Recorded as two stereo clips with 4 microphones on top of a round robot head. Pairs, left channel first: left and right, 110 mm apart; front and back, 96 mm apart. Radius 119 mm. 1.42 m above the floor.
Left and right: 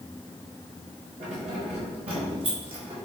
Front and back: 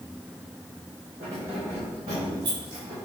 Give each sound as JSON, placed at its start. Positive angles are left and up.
{"t": 1.2, "sound": "keys jangling", "azimuth_deg": -110, "distance_m": 4.0}